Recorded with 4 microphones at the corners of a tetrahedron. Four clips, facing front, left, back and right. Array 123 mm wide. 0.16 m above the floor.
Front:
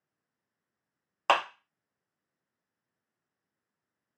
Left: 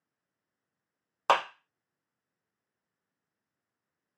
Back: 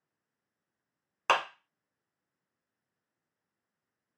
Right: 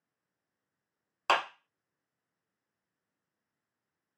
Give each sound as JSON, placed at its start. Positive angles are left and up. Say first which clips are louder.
{"t": 1.3, "sound": "a clap", "louder": "left 3 dB, front 2 dB", "azimuth_deg": 75, "distance_m": 0.8}